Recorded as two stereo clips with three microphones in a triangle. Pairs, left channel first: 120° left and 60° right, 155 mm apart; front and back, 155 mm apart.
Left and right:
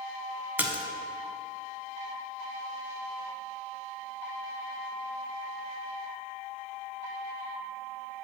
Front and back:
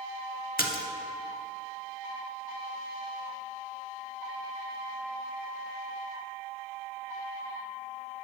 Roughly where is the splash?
Ahead.